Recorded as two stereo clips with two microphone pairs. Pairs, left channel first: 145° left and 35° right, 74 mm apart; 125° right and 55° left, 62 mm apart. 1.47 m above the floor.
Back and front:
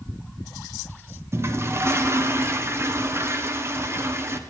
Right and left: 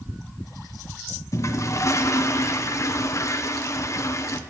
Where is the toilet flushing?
85° right, 0.9 m.